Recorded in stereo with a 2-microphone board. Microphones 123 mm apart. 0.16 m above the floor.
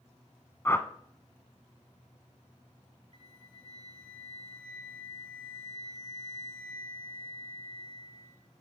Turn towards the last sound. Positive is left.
turn(degrees=40)  # may be behind; listen again after turning